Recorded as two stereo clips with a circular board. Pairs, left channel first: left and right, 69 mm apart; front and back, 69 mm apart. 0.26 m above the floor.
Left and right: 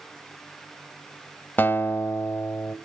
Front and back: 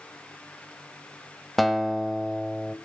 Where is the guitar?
85° left, 1.3 m.